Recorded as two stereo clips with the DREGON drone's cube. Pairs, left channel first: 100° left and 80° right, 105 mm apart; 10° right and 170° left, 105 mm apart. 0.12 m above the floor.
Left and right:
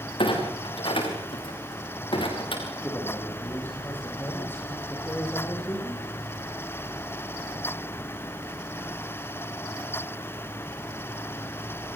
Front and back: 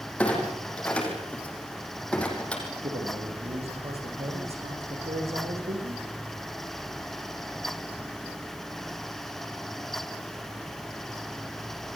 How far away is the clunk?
About 6.5 m.